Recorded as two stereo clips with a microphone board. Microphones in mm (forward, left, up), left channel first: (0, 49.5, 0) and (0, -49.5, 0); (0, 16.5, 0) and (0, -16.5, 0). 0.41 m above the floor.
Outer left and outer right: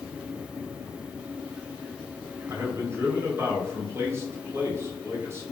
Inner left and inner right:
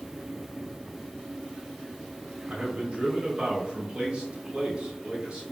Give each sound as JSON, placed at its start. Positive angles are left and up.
{"t": 2.5, "sound": "a man speaking", "side_deg": -30, "distance_m": 2.0}